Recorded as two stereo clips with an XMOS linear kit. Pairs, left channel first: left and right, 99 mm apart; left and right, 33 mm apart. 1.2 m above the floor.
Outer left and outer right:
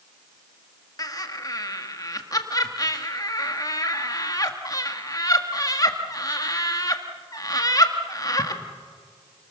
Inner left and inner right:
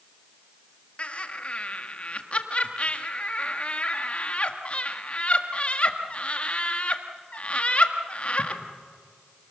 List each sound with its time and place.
1.0 s laughter: 40° left (ahead or behind), 1.8 m